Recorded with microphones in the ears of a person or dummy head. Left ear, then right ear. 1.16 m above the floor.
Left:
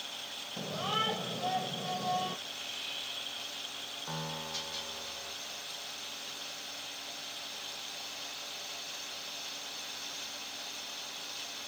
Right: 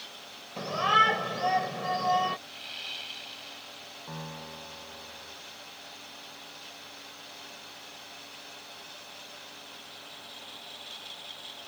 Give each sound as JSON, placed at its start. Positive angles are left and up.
{"t": 0.6, "sound": "a shout", "side_deg": -60}
{"t": 2.5, "sound": "sawing", "side_deg": -35}
{"t": 4.1, "sound": "a piano", "side_deg": 15}